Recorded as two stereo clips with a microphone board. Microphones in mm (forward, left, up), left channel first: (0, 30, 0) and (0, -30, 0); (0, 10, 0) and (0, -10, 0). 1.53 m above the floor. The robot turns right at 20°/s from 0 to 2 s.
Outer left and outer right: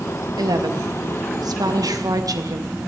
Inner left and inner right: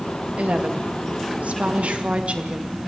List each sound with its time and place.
0.4 s a woman speaking: 100° right, 2.5 m; by 2.8 s 70° right, 2.5 m